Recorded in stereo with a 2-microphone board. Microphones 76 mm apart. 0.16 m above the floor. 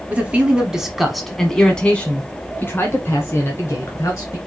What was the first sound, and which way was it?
A man speaking, 20° right (ahead or behind).